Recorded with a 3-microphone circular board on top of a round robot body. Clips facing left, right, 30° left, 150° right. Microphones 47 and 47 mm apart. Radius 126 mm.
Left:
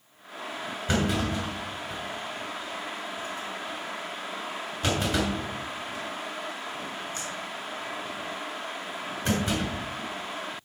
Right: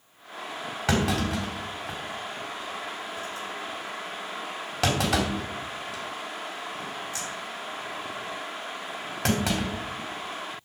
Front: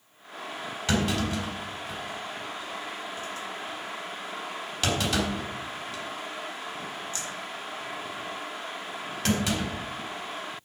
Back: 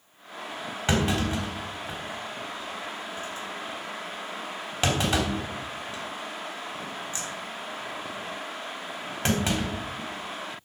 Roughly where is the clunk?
Right.